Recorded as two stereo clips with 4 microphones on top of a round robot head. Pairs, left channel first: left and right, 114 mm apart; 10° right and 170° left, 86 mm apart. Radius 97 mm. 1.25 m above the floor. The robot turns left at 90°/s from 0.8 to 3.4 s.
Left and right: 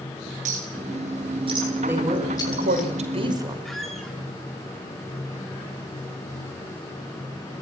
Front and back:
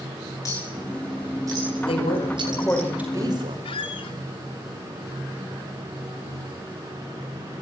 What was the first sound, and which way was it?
A clink, 70° right.